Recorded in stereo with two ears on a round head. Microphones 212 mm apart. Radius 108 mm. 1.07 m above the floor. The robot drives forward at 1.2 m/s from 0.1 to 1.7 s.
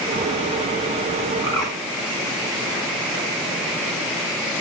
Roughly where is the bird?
Centre.